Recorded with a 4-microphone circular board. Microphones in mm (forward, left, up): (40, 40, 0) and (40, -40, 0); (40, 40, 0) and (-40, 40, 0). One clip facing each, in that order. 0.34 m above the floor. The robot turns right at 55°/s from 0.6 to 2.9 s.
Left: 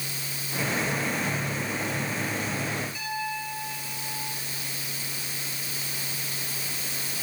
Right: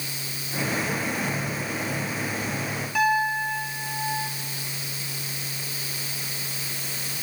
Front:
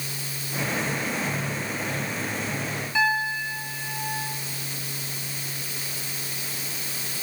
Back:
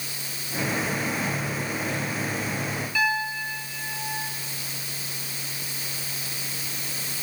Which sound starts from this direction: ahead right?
A piano, at 3.0 s.